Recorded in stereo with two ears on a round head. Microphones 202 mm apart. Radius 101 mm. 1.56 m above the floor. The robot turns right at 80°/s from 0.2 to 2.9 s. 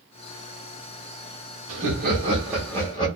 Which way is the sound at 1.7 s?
75° right.